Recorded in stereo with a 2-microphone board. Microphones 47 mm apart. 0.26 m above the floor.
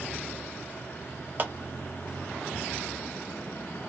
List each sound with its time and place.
1.4 s a clap: 35° right (ahead or behind), 1.1 m